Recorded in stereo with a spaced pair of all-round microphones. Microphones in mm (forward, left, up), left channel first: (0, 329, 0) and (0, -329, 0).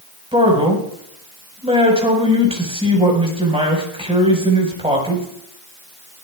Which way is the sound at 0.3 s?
10° right (ahead or behind).